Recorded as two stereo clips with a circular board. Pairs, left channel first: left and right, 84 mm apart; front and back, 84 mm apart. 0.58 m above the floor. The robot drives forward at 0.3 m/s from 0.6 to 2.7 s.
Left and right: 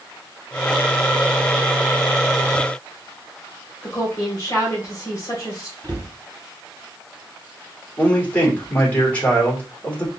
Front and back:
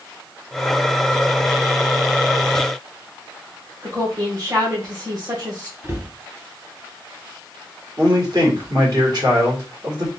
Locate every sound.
3.8 s a woman speaking: 140° left, 2 m
5.8 s a cupboard door: 125° right, 1.9 m
8.0 s a man speaking: 160° left, 1.8 m